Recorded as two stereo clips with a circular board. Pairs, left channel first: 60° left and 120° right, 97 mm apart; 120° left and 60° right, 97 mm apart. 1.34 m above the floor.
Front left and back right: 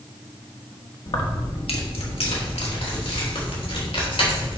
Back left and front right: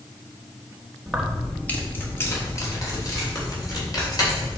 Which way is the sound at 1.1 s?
25° left.